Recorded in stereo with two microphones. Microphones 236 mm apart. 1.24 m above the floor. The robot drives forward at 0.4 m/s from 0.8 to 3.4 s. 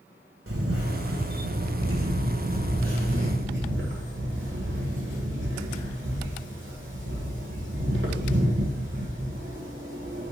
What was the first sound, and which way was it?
A camera shutter, 70° right (ahead or behind).